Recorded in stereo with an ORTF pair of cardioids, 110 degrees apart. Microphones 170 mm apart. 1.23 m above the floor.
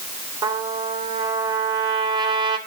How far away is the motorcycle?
No motorcycle in this recording.